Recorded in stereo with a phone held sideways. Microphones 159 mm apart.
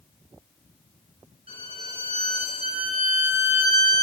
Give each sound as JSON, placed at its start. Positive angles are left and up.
{"t": 1.5, "sound": "a violin", "side_deg": -35, "distance_m": 5.5}